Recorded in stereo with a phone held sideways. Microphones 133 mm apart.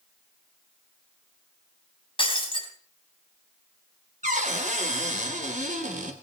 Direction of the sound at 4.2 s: 70° right (ahead or behind).